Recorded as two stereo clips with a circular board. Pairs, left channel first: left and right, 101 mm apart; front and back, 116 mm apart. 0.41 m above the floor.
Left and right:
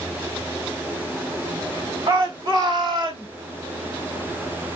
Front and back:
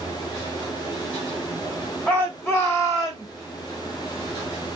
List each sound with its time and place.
2.1 s a shout: 70° right, 1.7 m; by 3.3 s 60° right, 2.5 m